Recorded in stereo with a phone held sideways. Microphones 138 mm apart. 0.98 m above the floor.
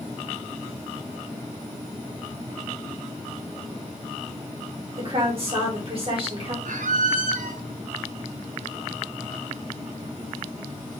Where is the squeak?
70° right (ahead or behind), 0.5 m.